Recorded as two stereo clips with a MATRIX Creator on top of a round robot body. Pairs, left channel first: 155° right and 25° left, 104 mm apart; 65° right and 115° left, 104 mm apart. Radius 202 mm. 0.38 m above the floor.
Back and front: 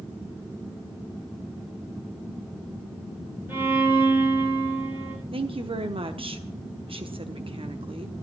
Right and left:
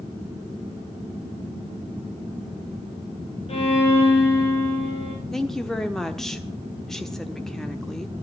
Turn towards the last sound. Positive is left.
turn(degrees=20)